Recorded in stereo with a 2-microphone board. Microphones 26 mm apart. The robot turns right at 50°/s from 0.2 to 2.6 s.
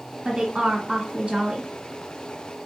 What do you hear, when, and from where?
0.2 s a woman speaking: 25° right (ahead or behind), 1.3 m; by 1.7 s 20° right (ahead or behind), 1.3 m